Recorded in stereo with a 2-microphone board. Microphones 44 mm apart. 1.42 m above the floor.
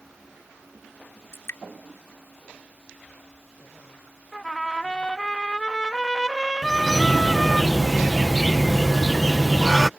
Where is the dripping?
80° left.